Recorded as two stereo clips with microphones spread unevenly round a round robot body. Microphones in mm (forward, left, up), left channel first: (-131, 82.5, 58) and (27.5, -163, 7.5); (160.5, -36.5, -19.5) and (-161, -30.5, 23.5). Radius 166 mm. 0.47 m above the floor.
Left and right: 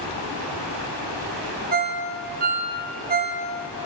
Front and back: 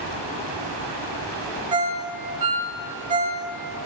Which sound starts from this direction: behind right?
A ringtone, at 1.7 s.